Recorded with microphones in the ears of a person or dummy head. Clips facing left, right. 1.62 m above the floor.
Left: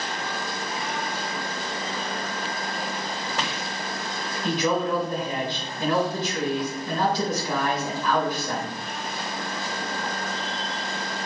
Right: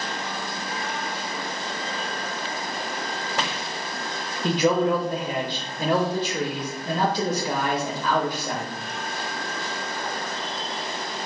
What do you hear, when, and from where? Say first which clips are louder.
4.4 s a man speaking: right 4 dB; 30° right (ahead or behind), 0.5 m